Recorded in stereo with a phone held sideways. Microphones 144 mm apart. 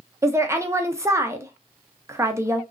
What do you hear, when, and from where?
0.2 s a woman speaking: 20° right (ahead or behind), 0.6 m